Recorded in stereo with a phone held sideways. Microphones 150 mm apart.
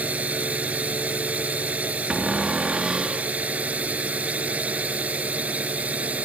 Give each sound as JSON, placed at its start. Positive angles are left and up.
{"t": 0.0, "sound": "a drone", "side_deg": -10}
{"t": 2.1, "sound": "a cupboard door", "side_deg": -5}